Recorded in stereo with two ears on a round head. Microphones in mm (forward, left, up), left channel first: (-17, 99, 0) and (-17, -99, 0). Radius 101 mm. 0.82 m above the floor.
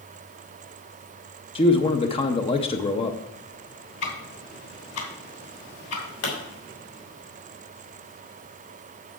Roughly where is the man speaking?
Left.